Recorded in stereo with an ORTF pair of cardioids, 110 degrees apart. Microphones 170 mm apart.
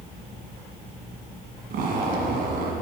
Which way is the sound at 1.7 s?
65° right.